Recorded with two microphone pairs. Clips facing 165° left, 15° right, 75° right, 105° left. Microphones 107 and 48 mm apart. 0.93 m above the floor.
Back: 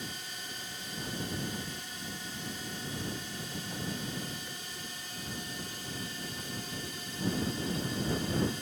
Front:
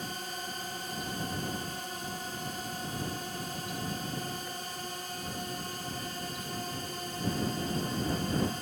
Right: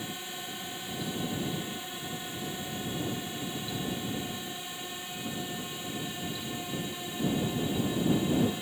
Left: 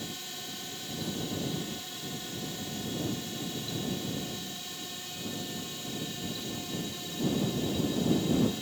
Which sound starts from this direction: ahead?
A drone, at 0.0 s.